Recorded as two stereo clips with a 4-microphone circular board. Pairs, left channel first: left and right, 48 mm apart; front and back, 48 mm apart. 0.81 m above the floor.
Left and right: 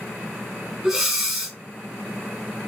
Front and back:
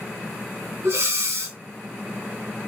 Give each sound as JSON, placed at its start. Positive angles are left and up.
{"t": 0.8, "sound": "breathing", "azimuth_deg": -175, "distance_m": 1.4}